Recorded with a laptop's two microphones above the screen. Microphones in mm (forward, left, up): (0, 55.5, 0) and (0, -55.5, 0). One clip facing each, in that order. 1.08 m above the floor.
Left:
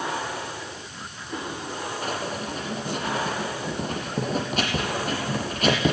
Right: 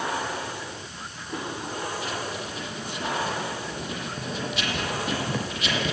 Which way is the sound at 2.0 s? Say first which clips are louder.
Left 2 dB; 45° left (ahead or behind).